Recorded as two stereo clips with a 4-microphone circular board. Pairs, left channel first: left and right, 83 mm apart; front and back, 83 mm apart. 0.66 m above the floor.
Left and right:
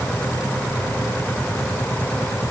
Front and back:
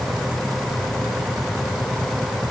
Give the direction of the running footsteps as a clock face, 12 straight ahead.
No running footsteps in this recording.